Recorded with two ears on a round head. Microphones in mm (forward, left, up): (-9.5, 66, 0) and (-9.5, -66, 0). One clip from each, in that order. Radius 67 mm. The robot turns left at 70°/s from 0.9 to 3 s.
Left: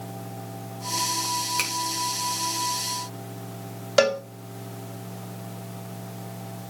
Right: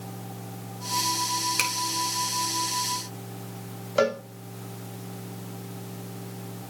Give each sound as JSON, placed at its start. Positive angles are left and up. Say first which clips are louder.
{"t": 1.6, "sound": "a finger snap", "louder": "right 4 dB", "side_deg": -10, "distance_m": 3.5}
{"t": 4.0, "sound": "a cowbell", "louder": "left 4 dB", "side_deg": 60, "distance_m": 1.0}